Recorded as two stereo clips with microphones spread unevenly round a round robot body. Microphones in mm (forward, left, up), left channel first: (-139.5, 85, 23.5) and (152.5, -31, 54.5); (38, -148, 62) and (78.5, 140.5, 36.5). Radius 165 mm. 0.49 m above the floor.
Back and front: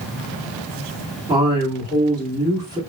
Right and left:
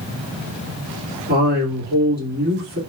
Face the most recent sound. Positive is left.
turn(degrees=55)